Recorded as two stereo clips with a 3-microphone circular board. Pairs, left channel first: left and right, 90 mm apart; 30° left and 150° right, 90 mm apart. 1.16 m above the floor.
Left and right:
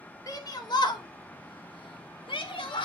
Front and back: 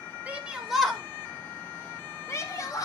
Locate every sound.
0.3 s a shout: 135° left, 1.8 m; by 2.9 s 80° left, 2.5 m